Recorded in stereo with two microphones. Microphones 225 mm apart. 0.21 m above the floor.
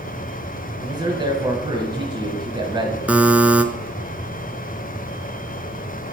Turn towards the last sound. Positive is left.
turn(degrees=-5)  # may be behind; listen again after turning